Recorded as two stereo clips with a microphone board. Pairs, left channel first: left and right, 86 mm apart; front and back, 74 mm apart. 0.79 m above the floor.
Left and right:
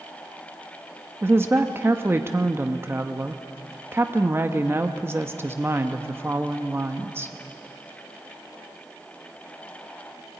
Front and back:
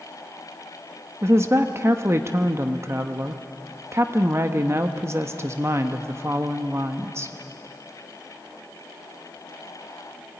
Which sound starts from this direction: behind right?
A woman speaking, at 1.2 s.